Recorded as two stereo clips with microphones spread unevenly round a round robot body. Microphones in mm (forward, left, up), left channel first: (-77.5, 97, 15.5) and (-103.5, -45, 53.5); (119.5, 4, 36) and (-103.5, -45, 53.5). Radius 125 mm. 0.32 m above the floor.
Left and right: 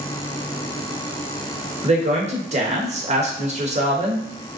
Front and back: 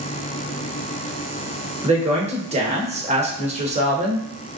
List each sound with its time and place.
1.8 s a woman speaking: 120° right, 1.1 m